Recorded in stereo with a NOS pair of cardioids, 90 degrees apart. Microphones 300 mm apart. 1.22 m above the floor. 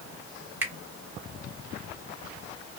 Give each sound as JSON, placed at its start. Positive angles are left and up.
{"t": 0.6, "sound": "a finger snap", "azimuth_deg": -5, "distance_m": 1.2}